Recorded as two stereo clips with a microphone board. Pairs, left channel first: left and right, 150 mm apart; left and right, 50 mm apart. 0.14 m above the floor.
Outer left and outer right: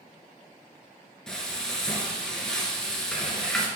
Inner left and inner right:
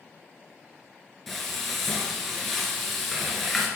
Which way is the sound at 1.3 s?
5° left (ahead or behind).